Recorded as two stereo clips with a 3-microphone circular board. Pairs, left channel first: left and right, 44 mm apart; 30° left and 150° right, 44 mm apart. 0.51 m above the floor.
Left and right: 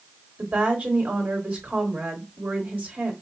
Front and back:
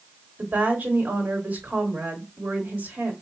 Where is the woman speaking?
135° right, 1.7 m.